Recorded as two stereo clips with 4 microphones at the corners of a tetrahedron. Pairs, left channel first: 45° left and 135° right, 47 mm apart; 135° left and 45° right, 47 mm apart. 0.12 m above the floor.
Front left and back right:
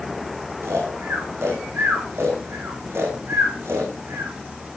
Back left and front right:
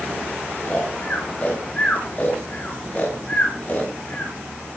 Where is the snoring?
165° right, 6.5 m.